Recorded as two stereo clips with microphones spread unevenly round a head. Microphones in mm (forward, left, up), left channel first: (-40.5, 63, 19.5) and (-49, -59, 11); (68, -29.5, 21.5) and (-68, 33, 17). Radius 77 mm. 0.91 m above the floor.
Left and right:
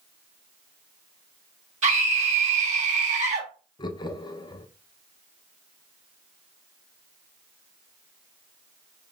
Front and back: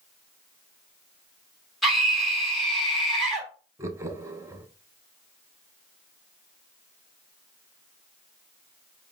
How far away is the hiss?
I don't hear a hiss.